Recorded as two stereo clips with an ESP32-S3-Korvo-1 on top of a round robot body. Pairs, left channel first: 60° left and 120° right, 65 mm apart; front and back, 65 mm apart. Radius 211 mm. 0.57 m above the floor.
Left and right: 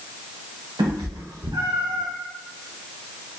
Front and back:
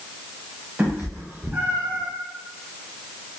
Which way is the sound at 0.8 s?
115° right.